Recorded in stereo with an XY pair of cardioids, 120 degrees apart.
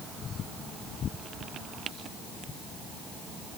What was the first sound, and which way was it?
Only background noise.